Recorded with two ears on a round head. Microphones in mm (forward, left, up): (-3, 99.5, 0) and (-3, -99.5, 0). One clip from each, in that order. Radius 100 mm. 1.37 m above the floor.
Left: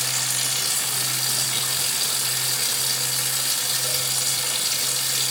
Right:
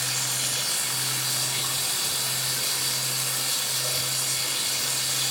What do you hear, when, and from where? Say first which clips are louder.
0.0 s running water: left 3 dB; 60° left (ahead or behind), 2 m